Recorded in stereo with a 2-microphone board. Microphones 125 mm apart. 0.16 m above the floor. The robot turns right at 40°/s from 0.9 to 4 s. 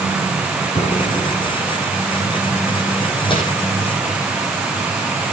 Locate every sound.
0.8 s an explosion: 70° left (ahead or behind), 7.5 m; by 1.6 s 40° left (ahead or behind), 7.5 m
3.3 s crumpling: 40° left (ahead or behind), 6.5 m; by 3.4 s 35° left (ahead or behind), 6.5 m